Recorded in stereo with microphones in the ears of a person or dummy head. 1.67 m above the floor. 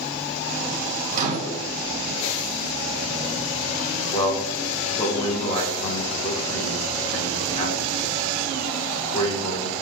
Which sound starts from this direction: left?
A man speaking, at 4.1 s.